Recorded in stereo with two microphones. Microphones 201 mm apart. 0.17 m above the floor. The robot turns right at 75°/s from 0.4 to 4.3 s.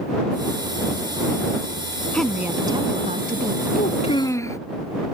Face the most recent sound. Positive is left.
turn(degrees=165)